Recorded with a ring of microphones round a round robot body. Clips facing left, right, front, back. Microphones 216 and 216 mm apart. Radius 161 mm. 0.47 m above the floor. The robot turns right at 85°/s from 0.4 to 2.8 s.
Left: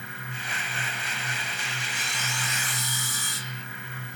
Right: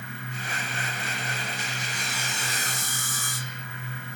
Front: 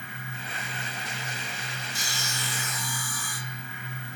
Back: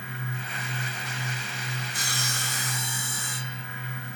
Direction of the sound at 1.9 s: 170° left.